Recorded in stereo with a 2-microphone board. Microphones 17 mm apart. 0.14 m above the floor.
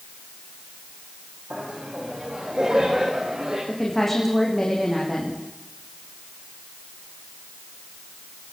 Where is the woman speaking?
5° left (ahead or behind), 8 m.